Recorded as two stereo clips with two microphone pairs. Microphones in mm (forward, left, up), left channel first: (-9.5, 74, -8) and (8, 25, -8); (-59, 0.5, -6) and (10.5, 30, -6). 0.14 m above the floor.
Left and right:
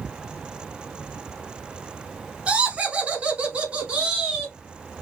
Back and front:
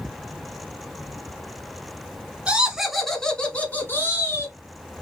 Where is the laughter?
35° right, 1.2 m; by 4.5 s 135° right, 1.5 m.